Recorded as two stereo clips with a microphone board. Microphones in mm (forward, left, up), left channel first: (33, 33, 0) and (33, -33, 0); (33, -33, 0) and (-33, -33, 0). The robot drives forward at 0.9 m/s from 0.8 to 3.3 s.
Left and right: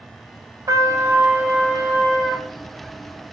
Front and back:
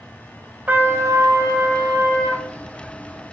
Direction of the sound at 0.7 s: 115° right.